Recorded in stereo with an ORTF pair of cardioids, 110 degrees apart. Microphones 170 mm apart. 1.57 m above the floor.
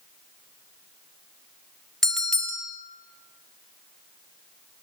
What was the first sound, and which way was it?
A bell, 5° left.